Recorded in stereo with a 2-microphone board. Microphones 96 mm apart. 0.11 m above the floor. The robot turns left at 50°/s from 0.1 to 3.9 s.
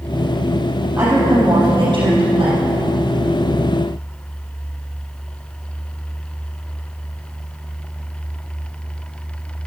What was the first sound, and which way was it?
A woman speaking, 15° right.